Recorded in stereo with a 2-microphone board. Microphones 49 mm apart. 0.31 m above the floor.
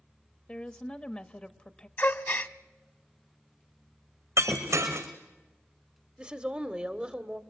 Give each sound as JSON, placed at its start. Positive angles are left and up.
{"t": 0.5, "sound": "a woman speaking", "side_deg": 25, "distance_m": 0.9}
{"t": 2.0, "sound": "a gasp", "side_deg": 45, "distance_m": 0.8}
{"t": 4.4, "sound": "breaking glass", "side_deg": -90, "distance_m": 3.5}
{"t": 6.2, "sound": "a woman speaking", "side_deg": -20, "distance_m": 1.0}